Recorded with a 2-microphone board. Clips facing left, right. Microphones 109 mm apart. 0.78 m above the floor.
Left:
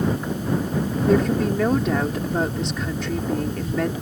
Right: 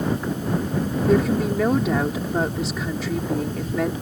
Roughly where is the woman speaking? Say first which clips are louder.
Even; centre.